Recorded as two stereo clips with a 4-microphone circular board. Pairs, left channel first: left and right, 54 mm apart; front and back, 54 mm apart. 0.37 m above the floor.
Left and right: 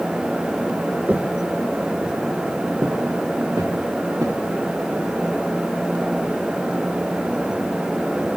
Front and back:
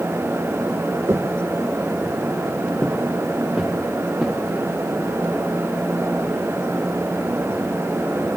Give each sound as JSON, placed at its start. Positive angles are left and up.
{"t": 1.1, "sound": "footsteps", "azimuth_deg": -150, "distance_m": 1.1}